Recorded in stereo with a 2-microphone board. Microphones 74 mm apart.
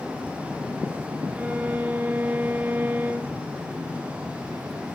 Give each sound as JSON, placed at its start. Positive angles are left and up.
{"t": 1.4, "sound": "a violin", "side_deg": -25, "distance_m": 0.6}